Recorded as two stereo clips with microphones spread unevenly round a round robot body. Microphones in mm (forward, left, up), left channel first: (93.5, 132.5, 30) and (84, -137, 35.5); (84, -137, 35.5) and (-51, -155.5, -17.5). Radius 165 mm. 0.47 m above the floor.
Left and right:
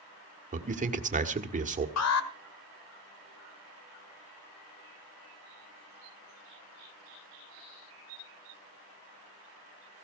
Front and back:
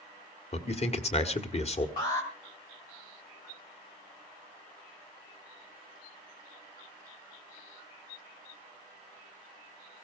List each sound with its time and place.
0.5 s a man speaking: 40° right, 1.8 m
2.0 s an alarm: 85° left, 1.7 m